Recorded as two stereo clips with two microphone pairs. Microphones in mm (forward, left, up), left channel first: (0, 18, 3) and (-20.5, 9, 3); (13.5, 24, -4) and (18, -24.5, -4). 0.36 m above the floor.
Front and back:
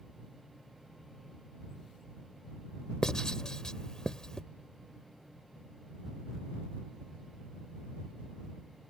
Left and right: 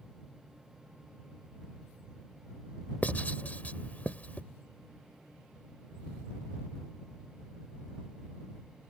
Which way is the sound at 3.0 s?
65° left.